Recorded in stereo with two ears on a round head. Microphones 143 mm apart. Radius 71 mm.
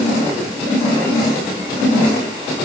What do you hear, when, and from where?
Only background noise.